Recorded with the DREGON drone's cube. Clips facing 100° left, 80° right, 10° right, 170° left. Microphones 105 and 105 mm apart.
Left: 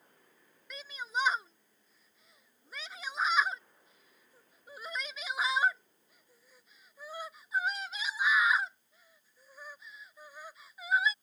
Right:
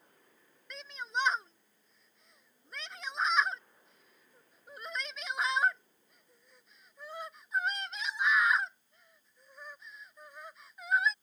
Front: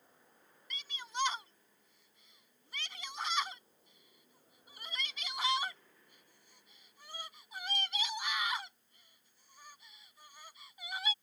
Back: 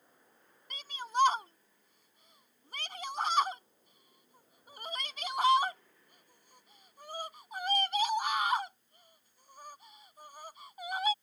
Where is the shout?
175° right.